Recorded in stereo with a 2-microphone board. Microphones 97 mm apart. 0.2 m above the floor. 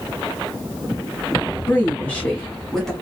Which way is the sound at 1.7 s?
20° left (ahead or behind).